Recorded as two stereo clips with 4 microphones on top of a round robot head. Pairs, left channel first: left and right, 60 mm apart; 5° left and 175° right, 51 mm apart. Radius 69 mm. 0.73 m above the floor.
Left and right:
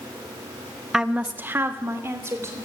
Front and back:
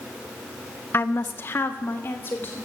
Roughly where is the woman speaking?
Ahead.